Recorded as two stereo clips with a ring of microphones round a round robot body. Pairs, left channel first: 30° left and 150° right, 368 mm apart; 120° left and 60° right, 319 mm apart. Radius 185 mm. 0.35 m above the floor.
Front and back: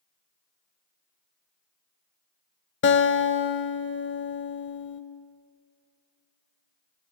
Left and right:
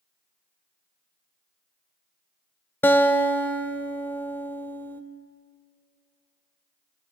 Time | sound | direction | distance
2.8 | a guitar | 40° left | 0.7 m